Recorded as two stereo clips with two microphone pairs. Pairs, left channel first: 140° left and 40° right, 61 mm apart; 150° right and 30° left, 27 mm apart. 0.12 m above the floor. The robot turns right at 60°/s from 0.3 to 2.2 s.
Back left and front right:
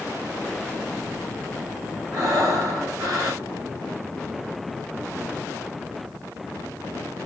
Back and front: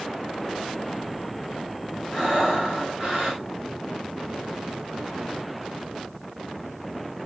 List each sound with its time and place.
2.1 s breathing: 50° right, 4.5 m; by 3.4 s 45° right, 4.5 m